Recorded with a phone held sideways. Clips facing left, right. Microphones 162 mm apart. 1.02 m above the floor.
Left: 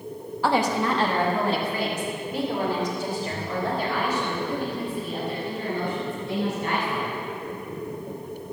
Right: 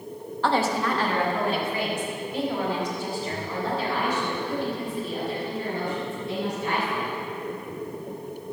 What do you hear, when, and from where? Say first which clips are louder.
0.4 s a woman speaking: left 1 dB; 10° left (ahead or behind), 1.1 m; by 7.1 s 55° left (ahead or behind), 7.5 m